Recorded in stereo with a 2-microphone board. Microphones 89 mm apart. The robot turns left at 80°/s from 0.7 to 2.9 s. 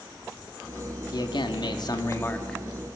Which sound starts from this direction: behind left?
A man speaking, at 1.1 s.